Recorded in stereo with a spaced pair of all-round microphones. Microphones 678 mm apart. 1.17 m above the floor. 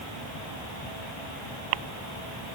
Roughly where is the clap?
I don't hear a clap.